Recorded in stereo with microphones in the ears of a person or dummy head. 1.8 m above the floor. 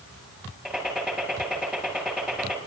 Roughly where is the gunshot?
Centre.